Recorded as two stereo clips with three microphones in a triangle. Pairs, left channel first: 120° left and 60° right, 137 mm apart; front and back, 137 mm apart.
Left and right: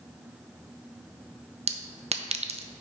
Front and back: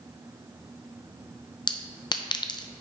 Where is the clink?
50° right, 0.6 m.